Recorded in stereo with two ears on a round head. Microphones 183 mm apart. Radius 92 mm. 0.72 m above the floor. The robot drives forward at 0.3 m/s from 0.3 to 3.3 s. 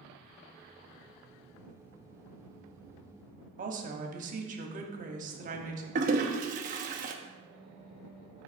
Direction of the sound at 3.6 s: 40° right (ahead or behind).